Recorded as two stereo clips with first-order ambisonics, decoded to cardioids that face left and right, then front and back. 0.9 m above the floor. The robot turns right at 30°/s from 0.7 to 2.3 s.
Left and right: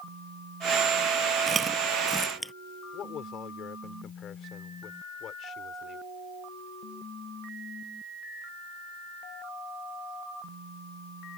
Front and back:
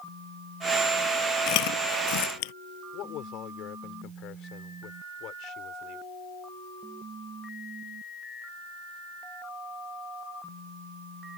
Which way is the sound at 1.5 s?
20° right.